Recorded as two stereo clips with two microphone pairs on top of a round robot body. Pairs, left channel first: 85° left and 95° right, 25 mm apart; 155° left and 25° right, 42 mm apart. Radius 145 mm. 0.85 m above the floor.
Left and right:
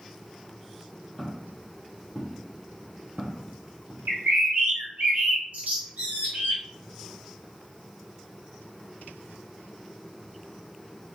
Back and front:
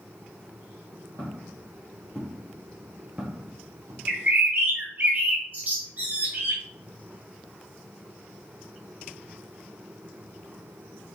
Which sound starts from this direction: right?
A bird, at 4.1 s.